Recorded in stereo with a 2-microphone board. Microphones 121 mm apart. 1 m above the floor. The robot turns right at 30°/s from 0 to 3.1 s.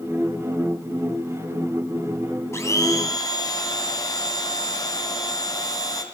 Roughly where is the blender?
Left.